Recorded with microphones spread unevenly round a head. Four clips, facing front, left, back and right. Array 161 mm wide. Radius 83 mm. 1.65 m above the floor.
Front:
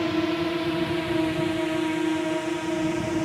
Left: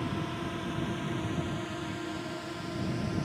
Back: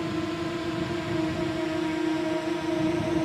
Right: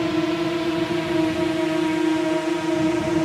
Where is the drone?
60° right; by 3.2 s 90° right.